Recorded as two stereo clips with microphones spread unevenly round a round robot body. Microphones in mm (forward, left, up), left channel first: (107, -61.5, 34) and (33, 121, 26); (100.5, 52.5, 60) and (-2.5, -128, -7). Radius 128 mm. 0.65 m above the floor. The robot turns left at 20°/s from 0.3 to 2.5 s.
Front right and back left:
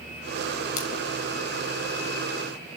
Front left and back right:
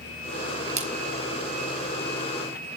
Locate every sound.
0.8 s a splash: 65° right, 4.5 m; by 0.9 s 70° right, 4.5 m